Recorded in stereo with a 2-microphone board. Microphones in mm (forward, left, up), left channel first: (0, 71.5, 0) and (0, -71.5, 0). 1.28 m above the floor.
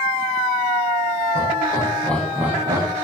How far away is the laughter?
About 1.6 m.